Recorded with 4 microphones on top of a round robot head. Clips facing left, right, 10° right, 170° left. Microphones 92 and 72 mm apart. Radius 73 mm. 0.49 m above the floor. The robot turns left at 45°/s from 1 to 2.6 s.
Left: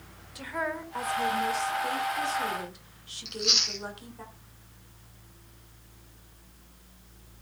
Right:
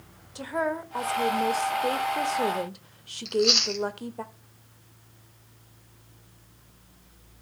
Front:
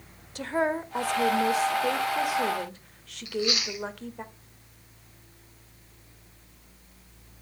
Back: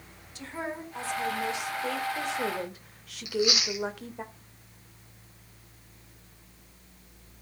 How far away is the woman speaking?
About 1.8 m.